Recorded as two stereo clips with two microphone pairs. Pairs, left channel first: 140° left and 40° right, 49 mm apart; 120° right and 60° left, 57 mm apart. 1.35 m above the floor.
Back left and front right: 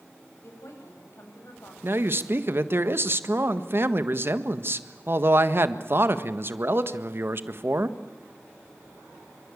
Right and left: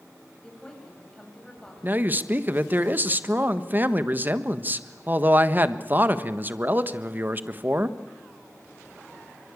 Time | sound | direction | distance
0.4 | a woman speaking | 160° left | 8.5 m
1.8 | a man speaking | 5° left | 1.5 m